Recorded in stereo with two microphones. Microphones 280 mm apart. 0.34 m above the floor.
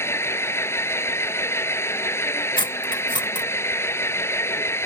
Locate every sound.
0.0 s an engine running: 10° left (ahead or behind)
2.6 s cutlery clinking: 15° left (ahead or behind)